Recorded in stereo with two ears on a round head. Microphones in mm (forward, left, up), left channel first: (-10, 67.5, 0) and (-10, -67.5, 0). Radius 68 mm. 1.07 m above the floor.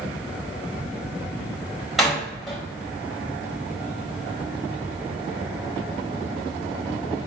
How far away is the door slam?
About 4.5 m.